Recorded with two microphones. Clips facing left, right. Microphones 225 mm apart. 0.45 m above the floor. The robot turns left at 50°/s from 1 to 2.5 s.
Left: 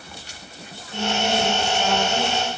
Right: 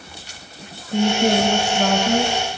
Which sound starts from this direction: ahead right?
A woman speaking, at 0.9 s.